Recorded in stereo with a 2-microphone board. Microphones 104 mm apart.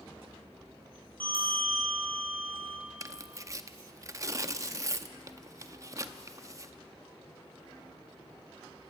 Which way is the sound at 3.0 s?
30° right (ahead or behind).